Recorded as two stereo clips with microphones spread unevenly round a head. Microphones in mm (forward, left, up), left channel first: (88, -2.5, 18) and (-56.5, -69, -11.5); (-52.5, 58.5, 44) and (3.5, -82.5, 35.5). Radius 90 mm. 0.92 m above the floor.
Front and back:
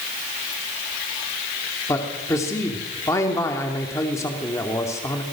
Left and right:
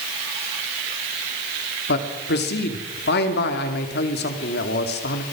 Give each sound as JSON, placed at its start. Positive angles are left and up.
{"t": 1.9, "sound": "a man speaking", "azimuth_deg": 100, "distance_m": 2.5}